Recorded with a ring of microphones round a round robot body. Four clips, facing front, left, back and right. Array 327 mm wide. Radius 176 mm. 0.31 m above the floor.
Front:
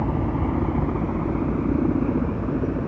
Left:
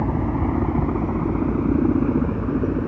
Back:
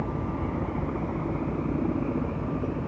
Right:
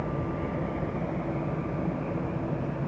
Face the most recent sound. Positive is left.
turn(degrees=70)